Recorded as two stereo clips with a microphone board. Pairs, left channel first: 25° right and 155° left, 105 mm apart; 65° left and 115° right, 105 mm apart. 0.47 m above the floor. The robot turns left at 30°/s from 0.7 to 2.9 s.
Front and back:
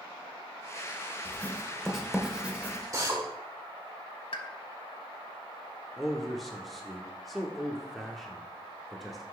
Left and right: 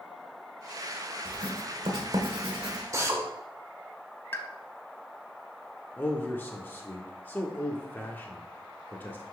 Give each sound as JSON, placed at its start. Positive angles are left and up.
{"t": 1.2, "sound": "writing", "azimuth_deg": -90, "distance_m": 1.1}
{"t": 2.9, "sound": "a drill", "azimuth_deg": -160, "distance_m": 1.3}
{"t": 4.3, "sound": "a pop", "azimuth_deg": 5, "distance_m": 0.8}
{"t": 6.0, "sound": "a man speaking", "azimuth_deg": 65, "distance_m": 0.7}